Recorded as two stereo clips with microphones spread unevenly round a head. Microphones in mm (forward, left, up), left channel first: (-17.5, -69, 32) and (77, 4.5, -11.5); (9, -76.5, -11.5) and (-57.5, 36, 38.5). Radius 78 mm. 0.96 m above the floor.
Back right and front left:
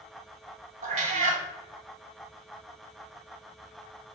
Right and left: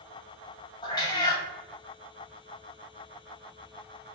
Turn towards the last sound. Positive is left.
turn(degrees=20)